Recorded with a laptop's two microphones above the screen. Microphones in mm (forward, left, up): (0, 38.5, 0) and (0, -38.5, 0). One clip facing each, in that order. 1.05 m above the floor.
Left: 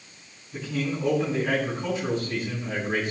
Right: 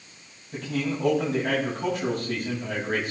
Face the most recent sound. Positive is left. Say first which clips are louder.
# right 1 dB
turn(degrees=-65)  # may be behind; listen again after turning